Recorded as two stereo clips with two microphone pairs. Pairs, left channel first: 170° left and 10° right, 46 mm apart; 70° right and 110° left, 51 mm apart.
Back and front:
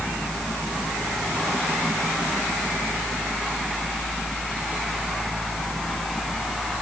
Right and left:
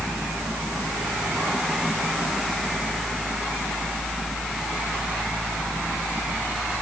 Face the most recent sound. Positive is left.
No sound to turn to.